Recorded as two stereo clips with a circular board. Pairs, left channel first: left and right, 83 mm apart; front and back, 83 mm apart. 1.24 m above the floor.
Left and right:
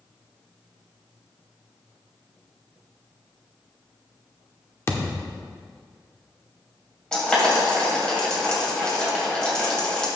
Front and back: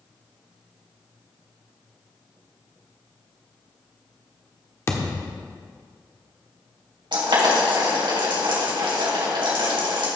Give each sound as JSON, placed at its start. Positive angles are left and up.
{"t": 4.9, "sound": "a thud", "azimuth_deg": 45, "distance_m": 1.1}
{"t": 7.1, "sound": "boiling", "azimuth_deg": 170, "distance_m": 3.0}